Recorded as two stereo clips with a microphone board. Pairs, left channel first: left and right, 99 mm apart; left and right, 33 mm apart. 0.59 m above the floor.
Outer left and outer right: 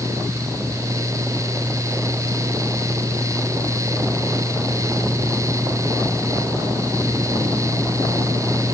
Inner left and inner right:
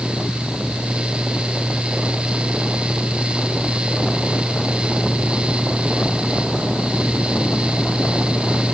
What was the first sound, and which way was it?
Only background noise.